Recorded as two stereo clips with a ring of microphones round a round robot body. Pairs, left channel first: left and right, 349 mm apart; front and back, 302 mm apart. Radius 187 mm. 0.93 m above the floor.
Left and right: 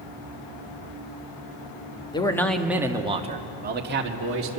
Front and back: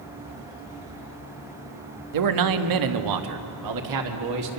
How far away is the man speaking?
About 1.5 m.